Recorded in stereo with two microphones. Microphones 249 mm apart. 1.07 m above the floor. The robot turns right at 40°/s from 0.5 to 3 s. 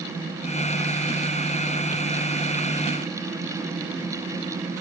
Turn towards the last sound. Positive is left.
No sound to turn to.